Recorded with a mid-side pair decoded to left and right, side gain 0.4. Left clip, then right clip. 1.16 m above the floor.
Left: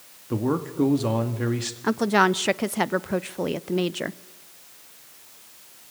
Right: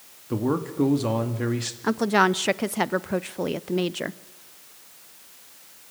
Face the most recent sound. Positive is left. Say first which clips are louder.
# even
turn(degrees=0)